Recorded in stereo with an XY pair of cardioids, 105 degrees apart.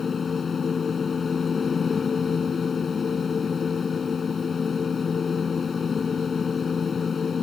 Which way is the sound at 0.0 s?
40° left.